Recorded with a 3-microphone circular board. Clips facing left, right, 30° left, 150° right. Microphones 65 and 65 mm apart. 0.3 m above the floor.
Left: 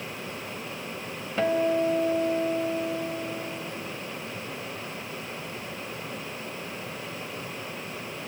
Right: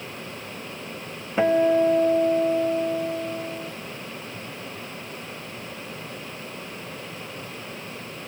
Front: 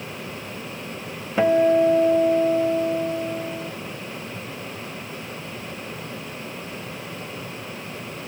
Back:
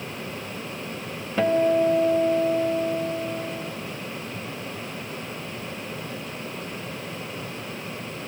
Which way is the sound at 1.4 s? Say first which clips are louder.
Right 5 dB, front 3 dB; 35° right.